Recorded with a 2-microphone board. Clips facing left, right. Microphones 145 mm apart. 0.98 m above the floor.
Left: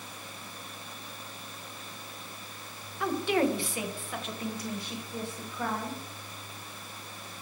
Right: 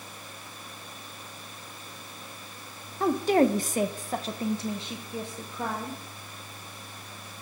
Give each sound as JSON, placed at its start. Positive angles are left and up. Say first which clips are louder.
{"t": 3.0, "sound": "a woman speaking", "louder": "right 5 dB", "side_deg": -35, "distance_m": 0.8}